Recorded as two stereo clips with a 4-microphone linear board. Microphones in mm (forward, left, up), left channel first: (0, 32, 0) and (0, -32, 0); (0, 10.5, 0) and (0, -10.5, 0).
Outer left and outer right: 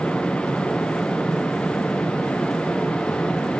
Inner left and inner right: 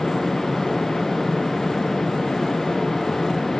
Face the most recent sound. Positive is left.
No sound to turn to.